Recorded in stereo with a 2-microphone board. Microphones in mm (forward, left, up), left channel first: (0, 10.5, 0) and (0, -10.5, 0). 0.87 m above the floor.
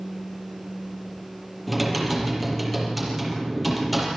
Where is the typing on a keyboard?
5° right (ahead or behind), 6.5 m.